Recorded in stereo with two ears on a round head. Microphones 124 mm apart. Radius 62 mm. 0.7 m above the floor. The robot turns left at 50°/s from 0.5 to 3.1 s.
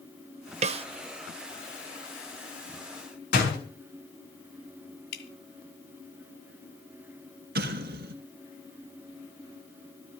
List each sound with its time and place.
0.6 s a snare drum: 50° right (ahead or behind), 0.7 m; by 0.8 s 40° right (ahead or behind), 0.7 m
3.3 s a door slam: 75° left (ahead or behind), 5.5 m
5.1 s dripping: 80° left, 2 m
7.5 s an explosion: 75° right (ahead or behind), 2 m